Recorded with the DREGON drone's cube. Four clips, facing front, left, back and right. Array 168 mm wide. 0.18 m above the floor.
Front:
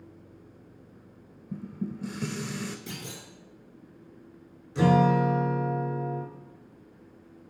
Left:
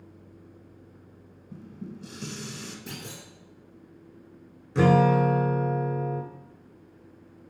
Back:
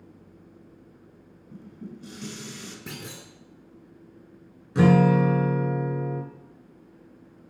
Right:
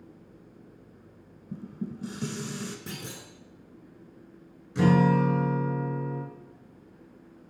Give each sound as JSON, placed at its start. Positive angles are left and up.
{"t": 1.5, "sound": "dishes clattering", "azimuth_deg": -30, "distance_m": 1.2}
{"t": 2.9, "sound": "a clunk", "azimuth_deg": -150, "distance_m": 3.0}
{"t": 4.8, "sound": "a guitar", "azimuth_deg": 140, "distance_m": 2.0}